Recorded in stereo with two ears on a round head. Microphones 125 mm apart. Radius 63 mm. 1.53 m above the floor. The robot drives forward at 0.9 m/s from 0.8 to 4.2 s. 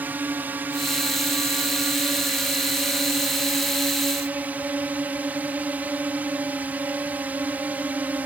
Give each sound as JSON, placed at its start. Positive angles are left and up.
{"t": 0.0, "sound": "a drone", "side_deg": -10}